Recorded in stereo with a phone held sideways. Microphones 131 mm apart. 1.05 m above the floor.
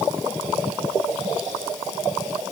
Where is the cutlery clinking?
I don't hear cutlery clinking.